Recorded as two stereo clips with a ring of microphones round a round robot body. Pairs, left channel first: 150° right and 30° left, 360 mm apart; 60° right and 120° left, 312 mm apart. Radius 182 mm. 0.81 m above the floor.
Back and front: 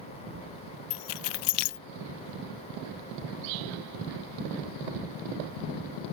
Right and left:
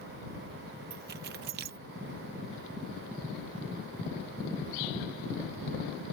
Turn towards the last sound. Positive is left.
turn(degrees=-175)